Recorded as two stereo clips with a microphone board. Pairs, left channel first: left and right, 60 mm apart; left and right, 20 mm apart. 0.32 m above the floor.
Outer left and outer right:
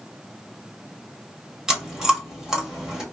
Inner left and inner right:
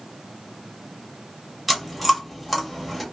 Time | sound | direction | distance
1.7 | chewing | 10° right (ahead or behind) | 1.1 m